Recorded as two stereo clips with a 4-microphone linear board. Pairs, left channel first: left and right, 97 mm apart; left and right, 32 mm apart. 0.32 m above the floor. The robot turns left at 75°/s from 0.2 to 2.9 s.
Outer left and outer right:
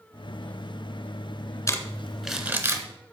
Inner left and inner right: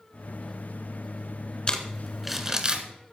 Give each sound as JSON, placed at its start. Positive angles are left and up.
{"t": 1.7, "sound": "crumpling", "side_deg": 35, "distance_m": 1.5}